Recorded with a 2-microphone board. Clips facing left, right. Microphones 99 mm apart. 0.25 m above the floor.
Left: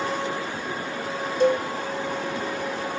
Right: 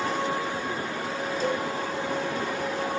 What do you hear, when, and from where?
1.4 s a cowbell: 70° left (ahead or behind), 0.5 m